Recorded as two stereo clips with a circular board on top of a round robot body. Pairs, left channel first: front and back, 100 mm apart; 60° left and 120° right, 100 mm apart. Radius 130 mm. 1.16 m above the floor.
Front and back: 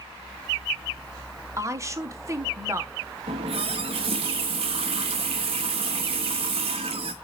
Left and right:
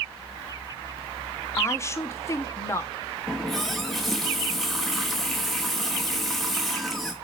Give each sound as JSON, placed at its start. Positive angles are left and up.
{"t": 1.6, "sound": "a woman speaking", "azimuth_deg": 120, "distance_m": 1.2}
{"t": 3.3, "sound": "a running tap", "azimuth_deg": 150, "distance_m": 0.8}